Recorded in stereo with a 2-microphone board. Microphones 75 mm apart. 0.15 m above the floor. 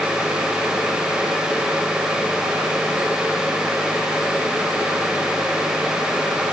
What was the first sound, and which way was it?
Only background noise.